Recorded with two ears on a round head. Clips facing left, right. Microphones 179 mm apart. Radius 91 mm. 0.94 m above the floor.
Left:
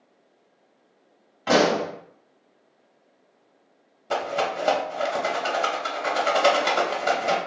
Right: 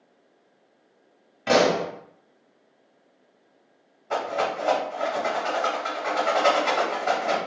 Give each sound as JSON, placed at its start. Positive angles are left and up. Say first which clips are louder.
{"t": 1.5, "sound": "a pop", "louder": "even", "side_deg": -25, "distance_m": 1.5}
{"t": 4.1, "sound": "a rattle", "louder": "left 1 dB", "side_deg": 40, "distance_m": 0.7}